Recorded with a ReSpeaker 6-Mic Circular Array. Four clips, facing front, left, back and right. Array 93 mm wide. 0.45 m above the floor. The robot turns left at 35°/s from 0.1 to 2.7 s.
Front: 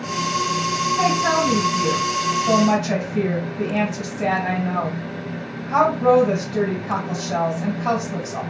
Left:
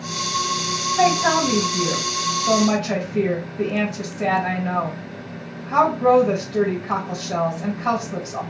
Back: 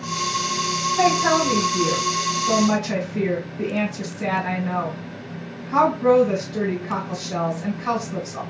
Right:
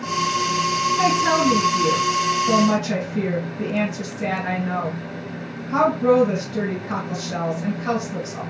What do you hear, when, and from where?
1.0 s a woman speaking: 110° left, 1.7 m; by 8.4 s 50° left, 1.7 m